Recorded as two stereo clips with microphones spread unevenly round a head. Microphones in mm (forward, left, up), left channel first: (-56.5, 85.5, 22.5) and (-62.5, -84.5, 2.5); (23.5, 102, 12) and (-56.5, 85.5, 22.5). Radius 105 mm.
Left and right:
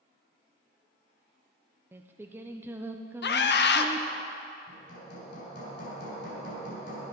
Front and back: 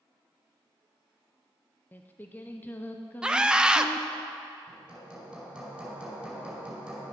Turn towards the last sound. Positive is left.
turn(degrees=115)